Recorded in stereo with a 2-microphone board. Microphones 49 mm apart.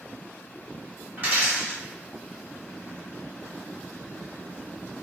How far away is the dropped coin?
About 1.5 m.